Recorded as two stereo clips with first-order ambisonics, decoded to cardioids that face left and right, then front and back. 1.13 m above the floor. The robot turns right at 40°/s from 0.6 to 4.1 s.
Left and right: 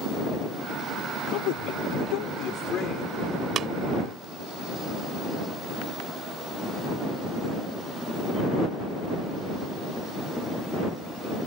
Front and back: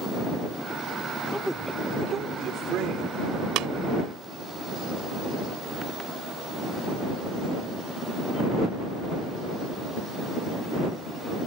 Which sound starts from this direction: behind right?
Tapping, at 3.6 s.